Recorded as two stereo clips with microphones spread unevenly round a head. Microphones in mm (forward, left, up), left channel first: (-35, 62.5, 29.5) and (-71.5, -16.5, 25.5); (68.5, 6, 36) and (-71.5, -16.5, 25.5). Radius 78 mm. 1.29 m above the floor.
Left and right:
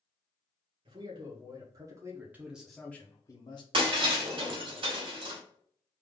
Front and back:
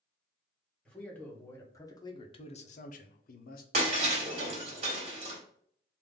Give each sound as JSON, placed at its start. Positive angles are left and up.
{"t": 0.8, "sound": "a man speaking", "azimuth_deg": -75, "distance_m": 1.5}
{"t": 3.7, "sound": "breaking glass", "azimuth_deg": -125, "distance_m": 1.9}